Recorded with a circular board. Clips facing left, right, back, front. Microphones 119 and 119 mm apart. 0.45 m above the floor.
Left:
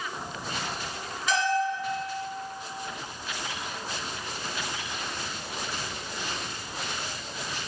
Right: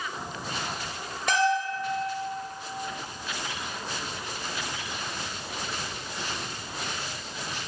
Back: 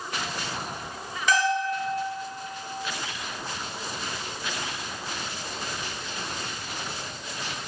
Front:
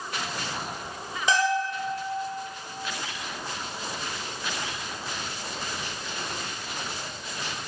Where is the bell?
65° right, 2 m.